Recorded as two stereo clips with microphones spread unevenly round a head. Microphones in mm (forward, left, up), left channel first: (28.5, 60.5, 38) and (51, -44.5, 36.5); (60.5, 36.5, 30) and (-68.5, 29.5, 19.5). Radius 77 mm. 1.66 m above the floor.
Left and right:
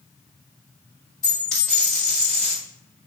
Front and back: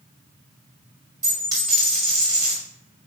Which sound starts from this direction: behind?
A dropped coin, at 1.2 s.